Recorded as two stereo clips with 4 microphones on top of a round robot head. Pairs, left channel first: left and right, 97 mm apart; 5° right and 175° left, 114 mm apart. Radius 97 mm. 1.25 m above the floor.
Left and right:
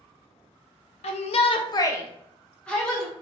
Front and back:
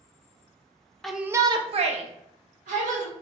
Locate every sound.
1.0 s a shout: 85° left, 0.5 m; by 3.1 s 175° left, 1.3 m